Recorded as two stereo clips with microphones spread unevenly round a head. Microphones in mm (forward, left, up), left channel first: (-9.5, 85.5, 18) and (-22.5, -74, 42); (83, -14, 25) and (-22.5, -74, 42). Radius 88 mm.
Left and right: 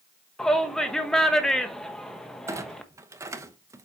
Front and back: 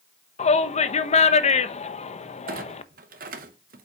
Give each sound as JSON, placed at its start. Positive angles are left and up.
{"t": 0.4, "sound": "a shout", "azimuth_deg": -5, "distance_m": 1.0}
{"t": 2.5, "sound": "a clunk", "azimuth_deg": -165, "distance_m": 0.8}